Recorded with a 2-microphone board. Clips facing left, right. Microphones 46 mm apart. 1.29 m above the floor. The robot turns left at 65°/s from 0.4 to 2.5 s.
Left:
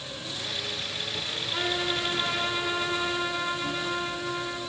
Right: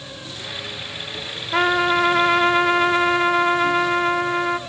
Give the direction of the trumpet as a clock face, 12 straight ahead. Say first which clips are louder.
Right 12 dB; 2 o'clock.